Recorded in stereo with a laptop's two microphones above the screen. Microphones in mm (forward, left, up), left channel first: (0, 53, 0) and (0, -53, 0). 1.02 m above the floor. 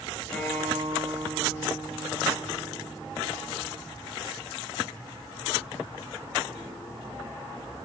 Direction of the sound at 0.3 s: 15° left (ahead or behind).